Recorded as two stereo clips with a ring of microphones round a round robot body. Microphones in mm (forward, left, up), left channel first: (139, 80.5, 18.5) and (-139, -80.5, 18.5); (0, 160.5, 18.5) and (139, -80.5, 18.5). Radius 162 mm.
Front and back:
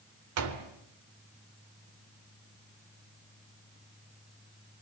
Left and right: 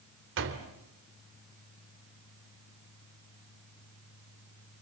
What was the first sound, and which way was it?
A door slam, 110° right.